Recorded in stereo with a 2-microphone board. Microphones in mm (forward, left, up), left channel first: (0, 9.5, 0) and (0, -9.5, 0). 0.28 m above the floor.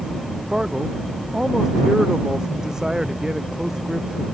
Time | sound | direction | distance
0.5 | a man speaking | 40° right (ahead or behind) | ?